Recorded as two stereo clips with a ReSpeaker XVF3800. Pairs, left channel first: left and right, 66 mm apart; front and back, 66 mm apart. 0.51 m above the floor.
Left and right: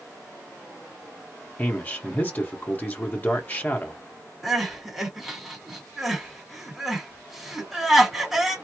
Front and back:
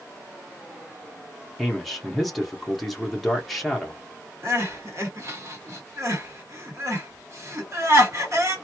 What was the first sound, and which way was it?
A man speaking, 85° left.